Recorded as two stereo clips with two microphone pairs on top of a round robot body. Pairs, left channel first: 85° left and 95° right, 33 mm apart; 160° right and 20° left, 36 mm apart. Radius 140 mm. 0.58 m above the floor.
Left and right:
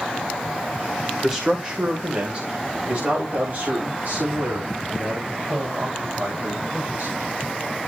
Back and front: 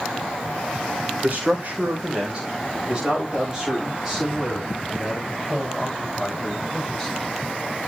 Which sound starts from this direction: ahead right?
A man speaking, at 1.2 s.